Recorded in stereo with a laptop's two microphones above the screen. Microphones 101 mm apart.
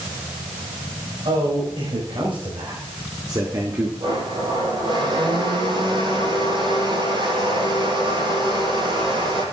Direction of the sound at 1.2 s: 60° right (ahead or behind).